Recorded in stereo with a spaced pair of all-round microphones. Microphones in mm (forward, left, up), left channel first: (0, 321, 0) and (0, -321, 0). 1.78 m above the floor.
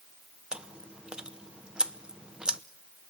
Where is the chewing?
Centre (ahead or behind), 0.8 m.